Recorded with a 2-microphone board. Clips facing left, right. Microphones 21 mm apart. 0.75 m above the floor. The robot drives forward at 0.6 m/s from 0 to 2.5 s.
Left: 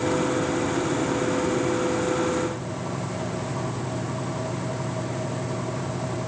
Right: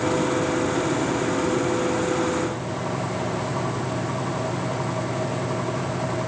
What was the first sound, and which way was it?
Only background noise.